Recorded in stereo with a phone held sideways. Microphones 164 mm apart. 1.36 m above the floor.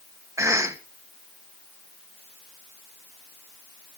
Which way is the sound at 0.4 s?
20° right (ahead or behind).